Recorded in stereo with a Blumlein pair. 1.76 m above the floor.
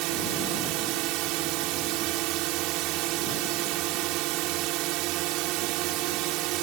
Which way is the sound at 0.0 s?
40° right.